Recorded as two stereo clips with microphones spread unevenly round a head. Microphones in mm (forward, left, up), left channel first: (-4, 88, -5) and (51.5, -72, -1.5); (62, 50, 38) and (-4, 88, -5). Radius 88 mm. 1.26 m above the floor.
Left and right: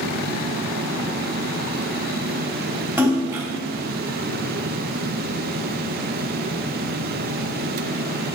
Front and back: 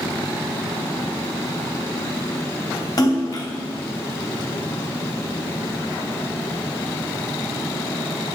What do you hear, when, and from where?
3.0 s a splash: 5° left, 2.5 m